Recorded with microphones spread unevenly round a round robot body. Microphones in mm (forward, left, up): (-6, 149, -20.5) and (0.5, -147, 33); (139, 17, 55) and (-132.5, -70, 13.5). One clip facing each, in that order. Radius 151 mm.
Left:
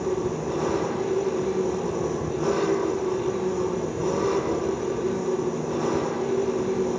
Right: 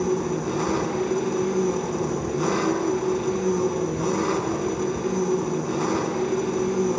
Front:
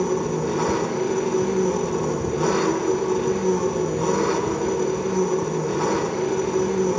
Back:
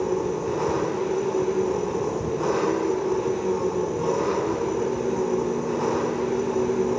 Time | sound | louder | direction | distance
0.0 | an engine running | right 2 dB, front 2 dB | 40° right | 5.5 m